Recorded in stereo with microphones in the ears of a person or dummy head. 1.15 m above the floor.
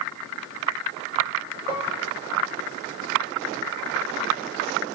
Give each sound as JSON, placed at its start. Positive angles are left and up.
{"t": 1.7, "sound": "dishes clattering", "side_deg": -20, "distance_m": 2.5}